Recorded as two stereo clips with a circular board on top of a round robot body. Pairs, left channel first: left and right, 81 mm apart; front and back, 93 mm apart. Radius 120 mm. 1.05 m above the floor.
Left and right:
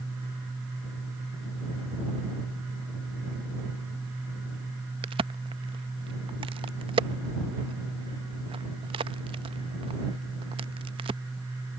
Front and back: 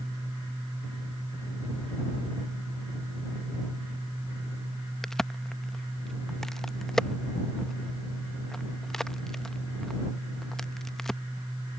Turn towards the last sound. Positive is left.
turn(degrees=-85)